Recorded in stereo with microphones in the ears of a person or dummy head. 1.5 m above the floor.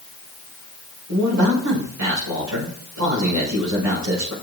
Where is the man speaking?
80° right, 6 m.